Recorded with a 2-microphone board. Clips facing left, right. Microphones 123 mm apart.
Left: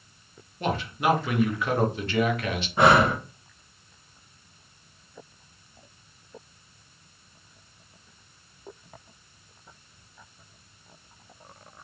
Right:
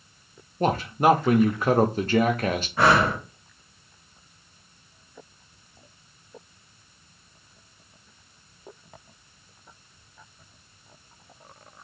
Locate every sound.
0.6 s a man speaking: 40° right (ahead or behind), 0.5 m
2.8 s breathing: 20° left (ahead or behind), 0.9 m